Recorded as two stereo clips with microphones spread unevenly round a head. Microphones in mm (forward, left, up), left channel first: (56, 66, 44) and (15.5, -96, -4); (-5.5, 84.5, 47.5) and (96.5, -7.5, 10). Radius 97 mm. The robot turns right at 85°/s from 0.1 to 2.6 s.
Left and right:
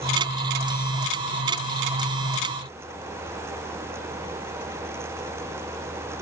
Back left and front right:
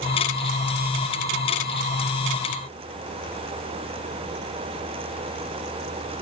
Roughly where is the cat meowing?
I don't hear a cat meowing.